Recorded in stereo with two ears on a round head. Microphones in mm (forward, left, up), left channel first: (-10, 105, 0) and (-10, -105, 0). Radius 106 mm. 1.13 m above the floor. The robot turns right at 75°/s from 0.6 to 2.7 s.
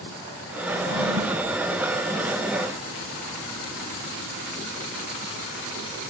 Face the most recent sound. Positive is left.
turn(degrees=40)